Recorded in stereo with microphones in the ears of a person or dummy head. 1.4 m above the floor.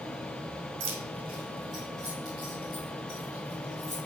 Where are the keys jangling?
60° right (ahead or behind), 1.5 m; by 4.0 s 15° right (ahead or behind), 5.5 m.